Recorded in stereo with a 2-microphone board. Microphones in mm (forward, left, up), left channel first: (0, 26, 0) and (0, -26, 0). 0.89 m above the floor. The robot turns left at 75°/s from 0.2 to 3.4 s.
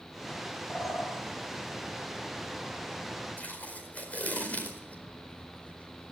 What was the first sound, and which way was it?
A bird, 165° right.